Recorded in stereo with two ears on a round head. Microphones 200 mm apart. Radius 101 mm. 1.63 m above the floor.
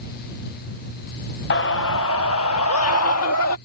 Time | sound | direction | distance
1.5 | a scream | 50° left (ahead or behind) | ?